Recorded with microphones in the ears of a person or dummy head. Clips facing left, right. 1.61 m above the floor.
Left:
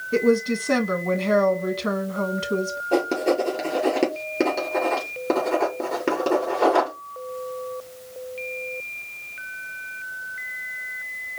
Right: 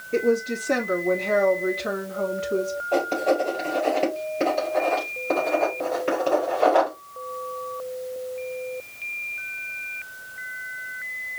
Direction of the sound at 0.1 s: 70° left (ahead or behind).